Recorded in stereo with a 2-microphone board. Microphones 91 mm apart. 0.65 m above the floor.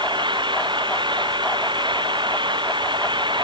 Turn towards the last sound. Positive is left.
turn(degrees=-55)  # may be behind; listen again after turning